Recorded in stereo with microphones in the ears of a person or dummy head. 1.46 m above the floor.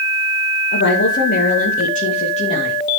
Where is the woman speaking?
60° left (ahead or behind), 2 m; by 2.8 s 25° left (ahead or behind), 2.5 m.